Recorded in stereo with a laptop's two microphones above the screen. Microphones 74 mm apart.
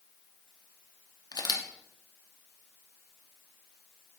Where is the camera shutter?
65° left (ahead or behind), 1.0 m.